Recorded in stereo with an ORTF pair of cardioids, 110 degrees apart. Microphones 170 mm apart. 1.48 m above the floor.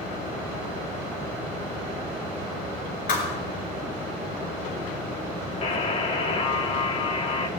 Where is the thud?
55° left, 5.5 m.